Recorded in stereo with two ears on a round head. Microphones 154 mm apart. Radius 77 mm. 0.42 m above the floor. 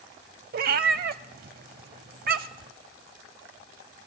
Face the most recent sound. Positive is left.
turn(degrees=-55)  # may be behind; listen again after turning